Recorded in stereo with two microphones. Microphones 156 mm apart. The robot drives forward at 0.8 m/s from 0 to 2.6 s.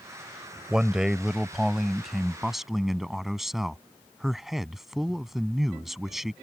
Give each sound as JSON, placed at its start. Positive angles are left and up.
{"t": 0.7, "sound": "a man speaking", "side_deg": -5}